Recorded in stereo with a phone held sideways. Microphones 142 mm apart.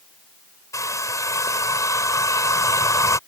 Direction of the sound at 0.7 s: 20° left (ahead or behind).